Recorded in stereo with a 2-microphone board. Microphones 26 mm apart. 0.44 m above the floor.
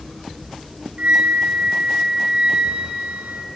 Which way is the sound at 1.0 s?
80° right.